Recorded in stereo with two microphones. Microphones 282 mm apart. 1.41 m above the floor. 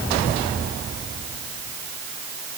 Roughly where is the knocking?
I don't hear knocking.